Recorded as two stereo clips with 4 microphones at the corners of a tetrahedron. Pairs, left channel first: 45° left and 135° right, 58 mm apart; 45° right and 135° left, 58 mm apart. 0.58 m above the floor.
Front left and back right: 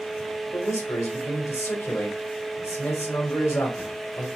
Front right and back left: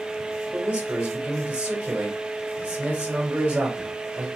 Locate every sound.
0.5 s a man speaking: 65° left, 1.7 m